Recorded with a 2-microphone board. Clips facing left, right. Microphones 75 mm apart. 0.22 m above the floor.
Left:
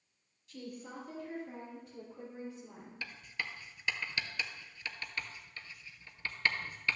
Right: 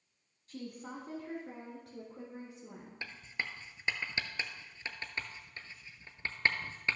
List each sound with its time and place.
0.5 s a woman speaking: 40° right (ahead or behind), 1.3 m; by 2.9 s 75° right (ahead or behind), 4 m
3.0 s writing: 25° right (ahead or behind), 0.7 m